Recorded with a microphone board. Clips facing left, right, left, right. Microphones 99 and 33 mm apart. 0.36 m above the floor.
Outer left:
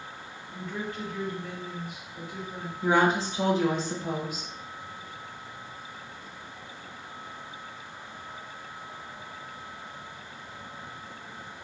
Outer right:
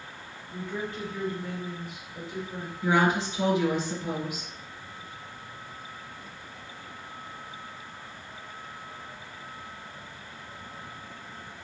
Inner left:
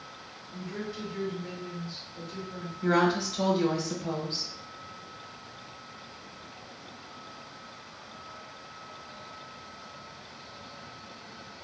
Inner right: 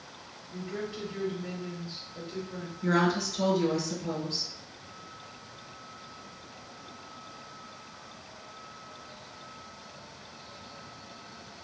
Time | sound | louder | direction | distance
0.5 | a woman speaking | outer right 1 dB, inner right 1 dB | 25° right (ahead or behind) | 0.8 m
2.8 | a woman speaking | outer left 1 dB, inner left 2 dB | 35° left (ahead or behind) | 1.0 m